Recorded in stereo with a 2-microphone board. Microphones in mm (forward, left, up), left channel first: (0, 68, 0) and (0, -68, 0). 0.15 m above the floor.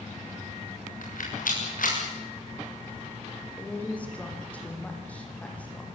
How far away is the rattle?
About 8.5 m.